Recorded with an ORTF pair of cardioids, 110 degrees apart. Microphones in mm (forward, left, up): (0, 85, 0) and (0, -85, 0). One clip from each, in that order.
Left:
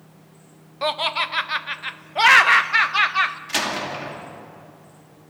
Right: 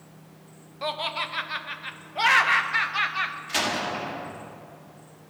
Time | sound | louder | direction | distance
0.8 | laughter | left 6 dB | 35° left | 0.6 m
3.5 | a door slam | left 2 dB | 30° left | 2.5 m